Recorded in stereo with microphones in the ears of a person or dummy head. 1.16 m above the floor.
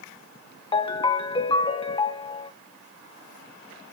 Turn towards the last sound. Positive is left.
turn(degrees=30)  # may be behind; listen again after turning